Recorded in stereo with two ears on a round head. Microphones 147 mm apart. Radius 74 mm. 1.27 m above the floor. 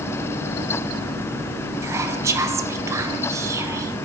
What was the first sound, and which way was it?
Whispering, 20° right (ahead or behind).